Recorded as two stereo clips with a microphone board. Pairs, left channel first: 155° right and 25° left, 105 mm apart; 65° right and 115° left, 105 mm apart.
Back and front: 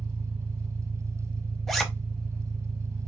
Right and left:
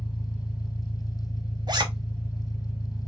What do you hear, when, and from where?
0.0 s an engine running: 40° left, 2.0 m
1.7 s a zipper: 115° left, 0.8 m